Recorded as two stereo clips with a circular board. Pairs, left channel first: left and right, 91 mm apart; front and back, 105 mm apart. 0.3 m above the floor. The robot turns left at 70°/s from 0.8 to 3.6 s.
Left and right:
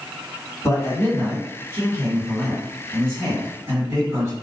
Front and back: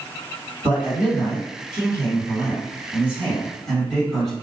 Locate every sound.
0.6 s a man speaking: 110° left, 2.0 m; by 4.3 s 85° right, 2.0 m